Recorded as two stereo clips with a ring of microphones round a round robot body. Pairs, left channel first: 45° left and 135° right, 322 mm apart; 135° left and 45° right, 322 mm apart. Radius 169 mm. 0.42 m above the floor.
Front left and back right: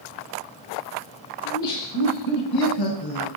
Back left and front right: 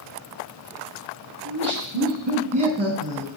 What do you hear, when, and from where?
1.4 s laughter: 10° left, 6 m; by 3.3 s 40° left, 4.5 m